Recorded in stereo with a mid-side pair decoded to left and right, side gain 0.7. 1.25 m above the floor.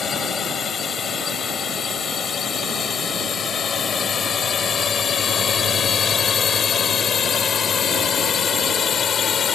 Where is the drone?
35° left.